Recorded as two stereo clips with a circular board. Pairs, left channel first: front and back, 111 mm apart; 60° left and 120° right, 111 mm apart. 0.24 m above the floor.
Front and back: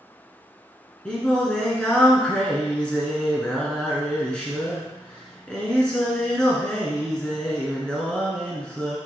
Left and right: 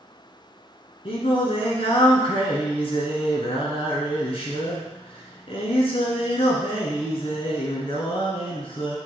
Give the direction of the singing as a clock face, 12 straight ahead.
9 o'clock.